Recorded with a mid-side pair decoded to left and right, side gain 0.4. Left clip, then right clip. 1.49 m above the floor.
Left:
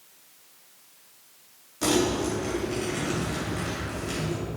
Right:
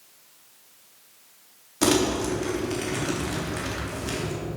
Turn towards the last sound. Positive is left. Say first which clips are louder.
# right 2 dB
turn(degrees=-60)